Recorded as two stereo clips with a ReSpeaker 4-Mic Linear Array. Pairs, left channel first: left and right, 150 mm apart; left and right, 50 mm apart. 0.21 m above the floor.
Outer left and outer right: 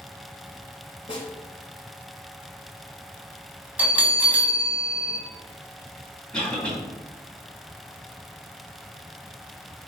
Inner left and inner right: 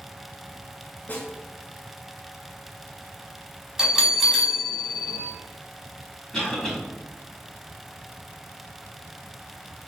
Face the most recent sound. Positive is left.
turn(degrees=10)  # may be behind; listen again after turning